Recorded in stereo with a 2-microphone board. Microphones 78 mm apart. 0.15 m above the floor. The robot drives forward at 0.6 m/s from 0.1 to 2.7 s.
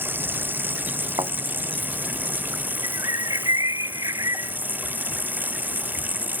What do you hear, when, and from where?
0.0 s running water: 25° right (ahead or behind)
1.2 s a thud: 80° right
2.8 s a bird: 50° right (ahead or behind)